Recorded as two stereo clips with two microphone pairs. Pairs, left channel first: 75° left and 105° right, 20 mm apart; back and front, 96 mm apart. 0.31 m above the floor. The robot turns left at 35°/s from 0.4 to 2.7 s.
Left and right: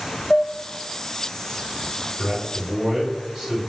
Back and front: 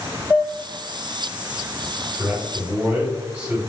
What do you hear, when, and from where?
0.3 s dishes clattering: 130° left, 0.8 m; by 0.5 s 125° left, 0.8 m
2.2 s a man speaking: 50° right, 1.2 m; by 3.6 s 65° right, 1.2 m